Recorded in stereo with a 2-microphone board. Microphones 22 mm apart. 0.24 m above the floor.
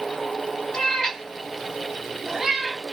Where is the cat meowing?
20° left (ahead or behind), 0.8 m; by 2.8 s 15° right (ahead or behind), 1.2 m.